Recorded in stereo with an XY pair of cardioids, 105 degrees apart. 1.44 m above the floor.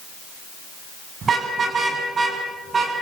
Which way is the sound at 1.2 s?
45° right.